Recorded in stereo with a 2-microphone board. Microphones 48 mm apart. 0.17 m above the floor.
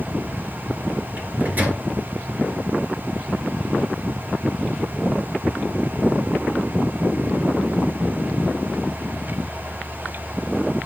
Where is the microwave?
35° right (ahead or behind), 2.5 m.